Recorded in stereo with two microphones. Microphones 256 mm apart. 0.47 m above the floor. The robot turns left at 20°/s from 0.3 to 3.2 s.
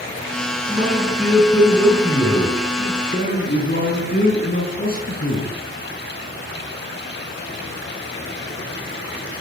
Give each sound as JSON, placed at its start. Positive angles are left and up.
{"t": 0.7, "sound": "a man speaking", "azimuth_deg": -170, "distance_m": 6.5}